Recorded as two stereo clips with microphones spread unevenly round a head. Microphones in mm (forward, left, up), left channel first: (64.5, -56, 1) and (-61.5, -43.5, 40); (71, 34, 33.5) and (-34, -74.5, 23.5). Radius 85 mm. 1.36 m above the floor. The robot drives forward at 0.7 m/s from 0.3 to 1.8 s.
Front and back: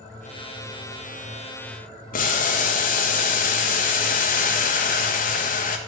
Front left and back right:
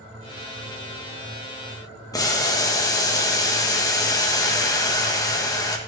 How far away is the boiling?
About 1.3 m.